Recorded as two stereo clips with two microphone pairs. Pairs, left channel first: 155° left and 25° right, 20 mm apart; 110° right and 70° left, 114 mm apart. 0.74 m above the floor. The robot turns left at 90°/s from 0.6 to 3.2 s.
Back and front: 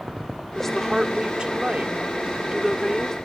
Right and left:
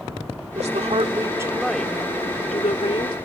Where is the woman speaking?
80° left; by 3.1 s 150° right.